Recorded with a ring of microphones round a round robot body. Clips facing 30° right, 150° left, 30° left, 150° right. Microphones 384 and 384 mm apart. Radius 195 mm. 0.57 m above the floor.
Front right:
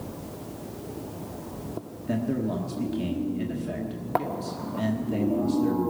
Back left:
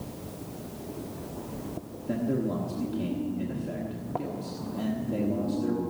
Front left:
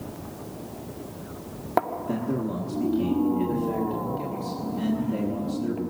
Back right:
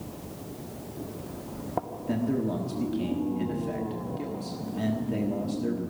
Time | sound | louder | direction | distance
2.1 | a man speaking | front right 1 dB, even | 80° right | 1.4 m